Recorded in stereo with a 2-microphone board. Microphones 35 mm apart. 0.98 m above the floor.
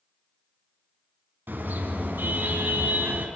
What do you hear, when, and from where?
1.5 s a car horn: 85° right, 5.5 m; by 3.3 s 70° right (ahead or behind), 4.5 m